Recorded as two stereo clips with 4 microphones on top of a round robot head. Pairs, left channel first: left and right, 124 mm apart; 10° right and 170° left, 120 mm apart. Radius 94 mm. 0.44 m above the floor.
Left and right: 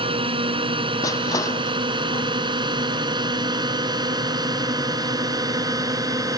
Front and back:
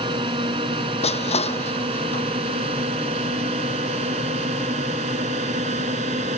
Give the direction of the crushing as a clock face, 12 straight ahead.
11 o'clock.